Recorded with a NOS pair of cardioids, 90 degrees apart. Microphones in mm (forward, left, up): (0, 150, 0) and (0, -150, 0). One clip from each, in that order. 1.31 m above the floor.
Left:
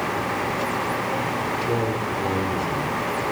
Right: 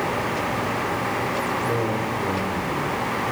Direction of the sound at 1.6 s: 10° left.